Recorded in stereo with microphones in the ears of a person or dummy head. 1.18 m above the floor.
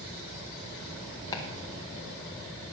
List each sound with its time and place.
1.3 s chopping: 20° left (ahead or behind), 1.3 m